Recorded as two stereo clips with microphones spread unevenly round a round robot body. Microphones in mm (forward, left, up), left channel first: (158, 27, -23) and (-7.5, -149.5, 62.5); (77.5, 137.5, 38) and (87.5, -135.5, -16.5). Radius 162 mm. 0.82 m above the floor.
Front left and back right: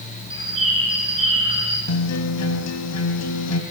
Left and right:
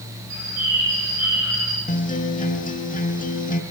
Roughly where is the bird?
Ahead right.